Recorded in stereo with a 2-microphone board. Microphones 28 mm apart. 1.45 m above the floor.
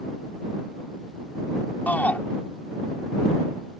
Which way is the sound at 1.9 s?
85° left.